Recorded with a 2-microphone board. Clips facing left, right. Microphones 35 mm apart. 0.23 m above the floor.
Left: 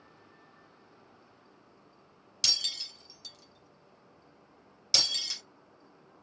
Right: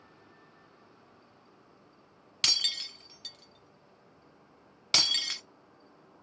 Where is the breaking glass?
45° right (ahead or behind), 1.1 m.